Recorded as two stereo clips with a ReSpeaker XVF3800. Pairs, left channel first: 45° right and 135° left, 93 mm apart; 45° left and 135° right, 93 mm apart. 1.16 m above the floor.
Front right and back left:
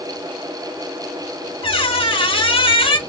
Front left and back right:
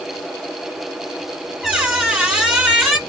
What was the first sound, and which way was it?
A squeak, 55° right.